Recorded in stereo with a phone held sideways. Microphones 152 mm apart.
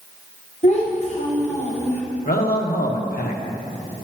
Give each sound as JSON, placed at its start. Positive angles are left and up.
{"t": 0.6, "sound": "a child speaking", "side_deg": 45, "distance_m": 1.0}
{"t": 2.2, "sound": "a man speaking", "side_deg": 80, "distance_m": 1.2}